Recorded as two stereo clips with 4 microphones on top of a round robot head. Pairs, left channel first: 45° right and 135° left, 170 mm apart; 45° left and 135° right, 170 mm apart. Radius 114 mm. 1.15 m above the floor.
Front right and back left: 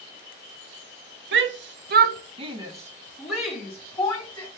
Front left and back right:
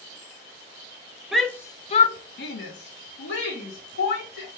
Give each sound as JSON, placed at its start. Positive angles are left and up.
{"t": 1.3, "sound": "a shout", "azimuth_deg": 140, "distance_m": 0.6}